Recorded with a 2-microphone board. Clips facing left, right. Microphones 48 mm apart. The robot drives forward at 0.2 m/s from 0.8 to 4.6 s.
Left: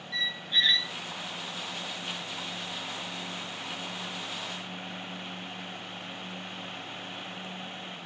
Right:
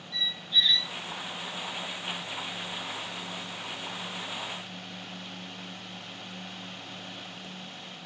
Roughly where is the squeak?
Left.